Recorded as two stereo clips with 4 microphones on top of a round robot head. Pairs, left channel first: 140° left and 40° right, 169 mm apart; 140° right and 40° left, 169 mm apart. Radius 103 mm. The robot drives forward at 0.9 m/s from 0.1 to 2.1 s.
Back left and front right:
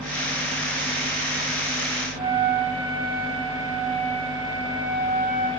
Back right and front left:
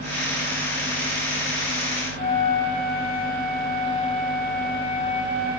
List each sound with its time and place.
2.2 s a flute: 95° right, 4 m